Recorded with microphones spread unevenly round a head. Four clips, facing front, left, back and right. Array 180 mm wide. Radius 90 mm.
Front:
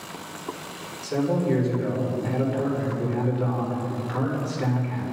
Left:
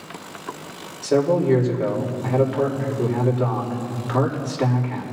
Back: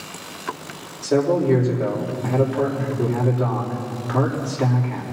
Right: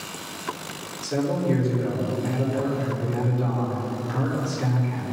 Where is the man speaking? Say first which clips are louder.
Left 6 dB, back 6 dB; 140° left, 4 m.